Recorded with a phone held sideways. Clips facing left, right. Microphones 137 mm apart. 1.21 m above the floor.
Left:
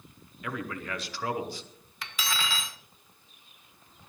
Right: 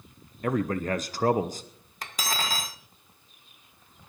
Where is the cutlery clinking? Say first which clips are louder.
Right 2 dB; 40° right (ahead or behind), 0.7 m.